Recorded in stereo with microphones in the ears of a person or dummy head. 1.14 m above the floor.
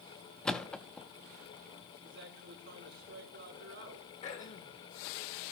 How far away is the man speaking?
About 4 m.